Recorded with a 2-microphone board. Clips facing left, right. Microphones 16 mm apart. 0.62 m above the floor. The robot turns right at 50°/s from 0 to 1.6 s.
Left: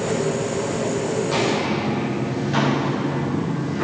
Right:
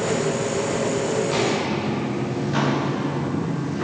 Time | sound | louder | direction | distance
1.2 | footsteps | left 3 dB | 5° right (ahead or behind) | 5.5 m